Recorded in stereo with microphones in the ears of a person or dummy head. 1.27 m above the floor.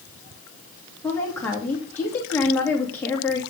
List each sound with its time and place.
1.0 s a woman speaking: 10° left (ahead or behind), 3 m